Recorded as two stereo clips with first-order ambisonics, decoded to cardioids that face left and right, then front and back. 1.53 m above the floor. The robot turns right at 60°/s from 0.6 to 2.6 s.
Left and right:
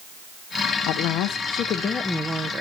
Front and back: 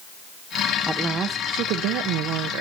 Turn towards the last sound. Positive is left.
turn(degrees=-160)